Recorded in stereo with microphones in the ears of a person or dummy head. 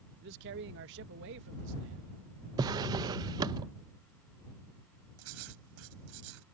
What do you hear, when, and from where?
0.2 s a man speaking: 60° right (ahead or behind); by 2.1 s 70° right (ahead or behind)
2.6 s a drawer: 20° right (ahead or behind)
5.2 s writing: 90° right